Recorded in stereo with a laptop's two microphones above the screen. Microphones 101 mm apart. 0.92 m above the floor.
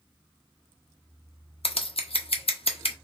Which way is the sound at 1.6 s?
70° left (ahead or behind).